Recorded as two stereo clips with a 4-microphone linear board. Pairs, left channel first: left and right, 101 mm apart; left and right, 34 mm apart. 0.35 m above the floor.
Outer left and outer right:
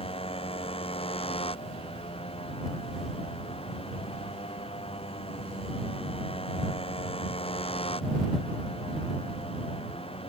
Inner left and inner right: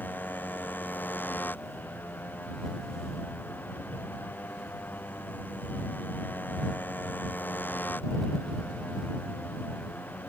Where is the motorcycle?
70° left (ahead or behind).